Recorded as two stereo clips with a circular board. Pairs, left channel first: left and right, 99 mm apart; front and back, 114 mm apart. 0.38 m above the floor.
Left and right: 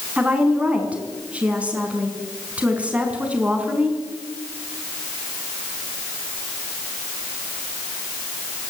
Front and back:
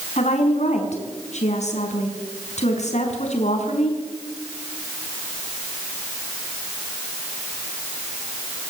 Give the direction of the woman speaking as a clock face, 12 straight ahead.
12 o'clock.